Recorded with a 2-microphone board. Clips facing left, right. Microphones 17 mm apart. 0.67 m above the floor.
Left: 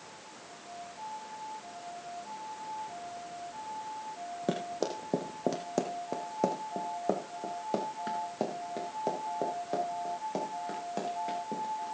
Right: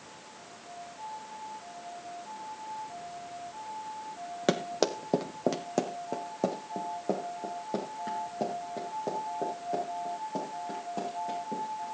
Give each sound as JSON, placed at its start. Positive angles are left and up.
{"t": 4.5, "sound": "running footsteps", "side_deg": -55, "distance_m": 1.3}